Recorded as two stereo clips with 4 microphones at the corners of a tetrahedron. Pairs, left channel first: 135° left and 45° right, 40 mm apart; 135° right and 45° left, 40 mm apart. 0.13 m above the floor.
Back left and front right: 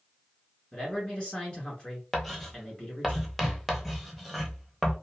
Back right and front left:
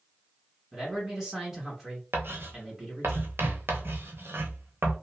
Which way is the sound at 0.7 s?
110° left.